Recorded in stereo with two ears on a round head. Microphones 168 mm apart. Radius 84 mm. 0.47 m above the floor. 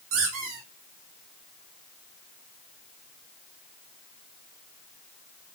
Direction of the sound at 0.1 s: 85° right.